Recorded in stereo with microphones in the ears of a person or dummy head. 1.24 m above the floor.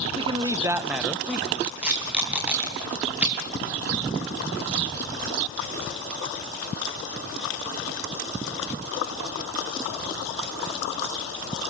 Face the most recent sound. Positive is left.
turn(degrees=-10)  # may be behind; listen again after turning